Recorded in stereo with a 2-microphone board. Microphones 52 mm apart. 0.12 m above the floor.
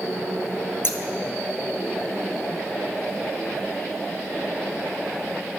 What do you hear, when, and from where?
0.8 s scissors: 50° left (ahead or behind), 1.2 m